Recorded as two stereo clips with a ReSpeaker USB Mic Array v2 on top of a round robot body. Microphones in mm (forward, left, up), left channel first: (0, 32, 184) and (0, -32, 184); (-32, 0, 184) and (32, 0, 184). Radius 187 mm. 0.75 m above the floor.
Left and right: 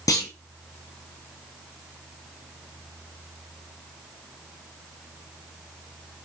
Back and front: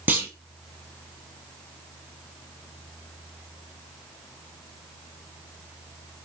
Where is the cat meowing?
I don't hear a cat meowing.